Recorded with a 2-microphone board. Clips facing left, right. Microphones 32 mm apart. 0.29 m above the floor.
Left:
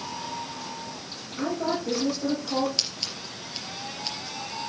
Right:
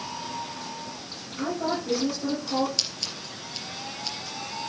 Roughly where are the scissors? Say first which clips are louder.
Even; centre.